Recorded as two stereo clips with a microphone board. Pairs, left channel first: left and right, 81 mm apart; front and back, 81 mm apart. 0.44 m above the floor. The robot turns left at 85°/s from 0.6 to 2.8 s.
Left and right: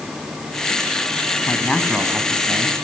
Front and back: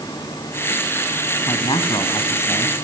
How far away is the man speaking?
About 3.5 m.